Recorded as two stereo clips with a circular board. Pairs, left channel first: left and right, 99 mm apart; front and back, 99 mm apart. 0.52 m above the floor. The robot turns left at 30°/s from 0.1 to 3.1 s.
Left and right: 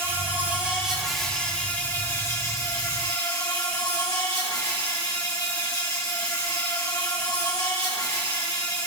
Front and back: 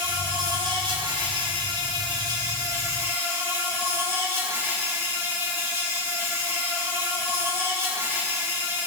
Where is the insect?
150° right, 3.5 m; by 8.9 s 120° left, 3.5 m.